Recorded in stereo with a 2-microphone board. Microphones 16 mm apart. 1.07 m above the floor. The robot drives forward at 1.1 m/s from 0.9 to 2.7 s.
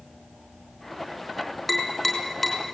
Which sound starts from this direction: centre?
Tapping, at 1.7 s.